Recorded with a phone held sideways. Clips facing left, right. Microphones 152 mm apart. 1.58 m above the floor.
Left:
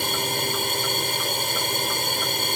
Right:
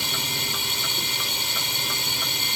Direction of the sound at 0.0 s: 50° left (ahead or behind).